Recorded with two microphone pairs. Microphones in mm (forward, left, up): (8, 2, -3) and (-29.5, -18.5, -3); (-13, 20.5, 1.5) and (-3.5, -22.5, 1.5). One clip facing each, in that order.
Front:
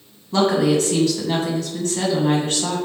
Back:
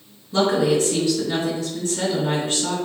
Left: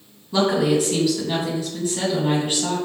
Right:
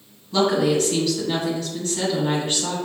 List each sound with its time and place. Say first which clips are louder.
0.3 s a woman speaking: front 1 dB, even; 20° left, 2.5 m